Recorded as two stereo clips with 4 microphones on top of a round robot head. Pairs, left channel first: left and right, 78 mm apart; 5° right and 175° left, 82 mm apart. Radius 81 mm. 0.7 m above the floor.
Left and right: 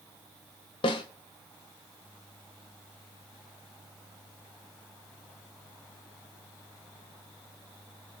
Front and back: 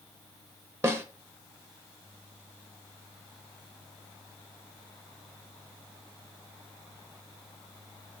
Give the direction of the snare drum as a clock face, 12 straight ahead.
8 o'clock.